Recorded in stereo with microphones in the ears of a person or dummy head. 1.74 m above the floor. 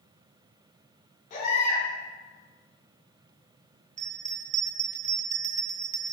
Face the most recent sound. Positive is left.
turn(degrees=-40)  # may be behind; listen again after turning